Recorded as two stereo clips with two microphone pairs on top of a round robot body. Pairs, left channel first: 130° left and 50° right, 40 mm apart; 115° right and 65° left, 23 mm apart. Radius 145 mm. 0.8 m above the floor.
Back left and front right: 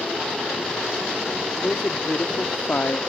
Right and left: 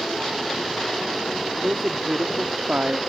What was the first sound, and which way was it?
A woman speaking, 75° left.